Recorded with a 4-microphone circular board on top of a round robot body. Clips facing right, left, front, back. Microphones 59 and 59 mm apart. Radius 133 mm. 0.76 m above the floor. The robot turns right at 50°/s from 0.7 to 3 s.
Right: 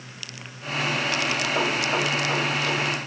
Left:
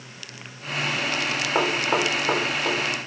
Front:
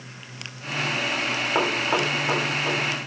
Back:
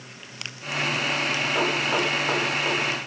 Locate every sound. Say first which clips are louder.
1.6 s knocking: left 4 dB, front 2 dB; 50° left, 3 m; by 2.8 s 110° left, 3 m